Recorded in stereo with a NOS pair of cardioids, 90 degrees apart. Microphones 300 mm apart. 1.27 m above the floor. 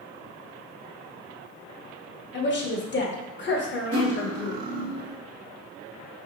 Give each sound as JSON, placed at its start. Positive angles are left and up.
{"t": 2.3, "sound": "a woman speaking", "azimuth_deg": 35, "distance_m": 1.0}
{"t": 3.9, "sound": "cutlery clinking", "azimuth_deg": -50, "distance_m": 1.0}